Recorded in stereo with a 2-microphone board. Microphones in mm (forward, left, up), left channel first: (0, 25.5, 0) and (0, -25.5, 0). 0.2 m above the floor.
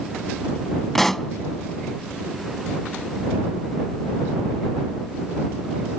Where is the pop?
5° left (ahead or behind).